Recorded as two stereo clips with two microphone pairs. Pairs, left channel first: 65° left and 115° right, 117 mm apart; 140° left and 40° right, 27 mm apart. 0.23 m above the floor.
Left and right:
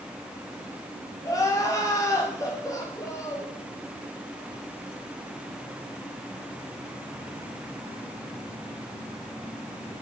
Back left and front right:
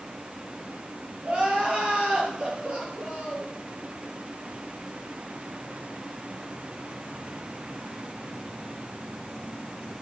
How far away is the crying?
About 5.5 m.